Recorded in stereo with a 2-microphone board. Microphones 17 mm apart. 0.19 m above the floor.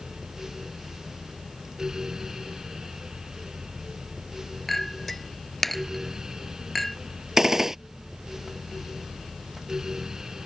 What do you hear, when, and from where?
4.7 s a clink: 10° left (ahead or behind)
7.4 s a gunshot: 25° right (ahead or behind)